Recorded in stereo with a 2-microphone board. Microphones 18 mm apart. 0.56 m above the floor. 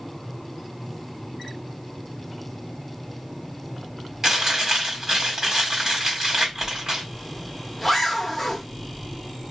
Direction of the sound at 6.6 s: 10° left (ahead or behind).